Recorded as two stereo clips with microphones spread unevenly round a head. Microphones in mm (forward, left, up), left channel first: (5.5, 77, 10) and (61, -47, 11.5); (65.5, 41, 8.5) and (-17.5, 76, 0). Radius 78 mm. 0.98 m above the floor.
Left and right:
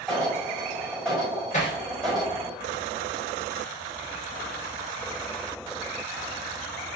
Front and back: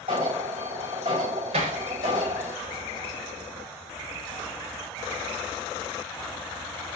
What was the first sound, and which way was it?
An alarm, 160° right.